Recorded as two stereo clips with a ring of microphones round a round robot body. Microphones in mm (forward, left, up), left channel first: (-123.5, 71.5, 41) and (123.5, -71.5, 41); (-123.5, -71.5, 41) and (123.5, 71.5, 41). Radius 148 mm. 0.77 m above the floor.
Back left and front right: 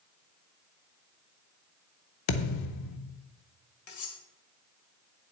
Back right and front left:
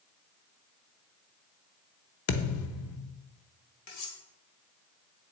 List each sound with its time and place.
2.3 s a thud: 170° left, 0.7 m
3.9 s cutlery clinking: straight behind, 1.9 m